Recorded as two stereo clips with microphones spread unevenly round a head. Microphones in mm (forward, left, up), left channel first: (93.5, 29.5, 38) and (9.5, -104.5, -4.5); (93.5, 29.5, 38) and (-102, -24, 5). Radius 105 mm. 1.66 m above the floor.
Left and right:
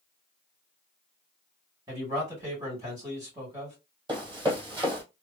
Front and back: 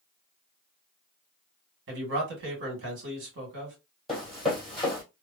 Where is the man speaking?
160° left, 1.8 m.